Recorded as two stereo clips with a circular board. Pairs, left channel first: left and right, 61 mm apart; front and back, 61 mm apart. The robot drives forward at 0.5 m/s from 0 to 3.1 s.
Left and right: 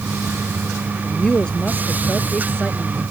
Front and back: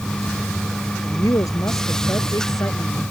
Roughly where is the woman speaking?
Ahead.